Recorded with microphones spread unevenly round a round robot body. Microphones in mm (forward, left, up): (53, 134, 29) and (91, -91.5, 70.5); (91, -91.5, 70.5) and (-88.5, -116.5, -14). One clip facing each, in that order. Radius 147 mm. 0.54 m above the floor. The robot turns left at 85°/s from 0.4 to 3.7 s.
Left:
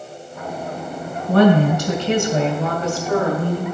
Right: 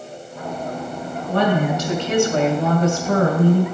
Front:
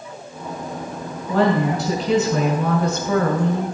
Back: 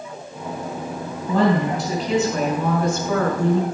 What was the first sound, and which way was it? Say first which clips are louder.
A woman speaking: left 6 dB, even; 110° left.